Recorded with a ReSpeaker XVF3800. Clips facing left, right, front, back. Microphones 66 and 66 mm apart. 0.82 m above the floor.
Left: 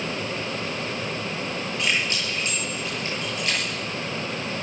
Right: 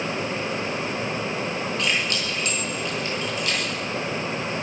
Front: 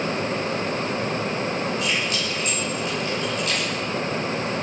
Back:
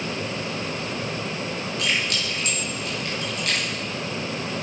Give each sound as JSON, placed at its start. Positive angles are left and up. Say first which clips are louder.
{"t": 1.8, "sound": "keys jangling", "louder": "left 2 dB, front 1 dB", "azimuth_deg": 155, "distance_m": 9.0}